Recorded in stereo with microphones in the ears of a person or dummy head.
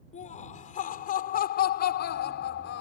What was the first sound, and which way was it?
Laughter, 35° left (ahead or behind).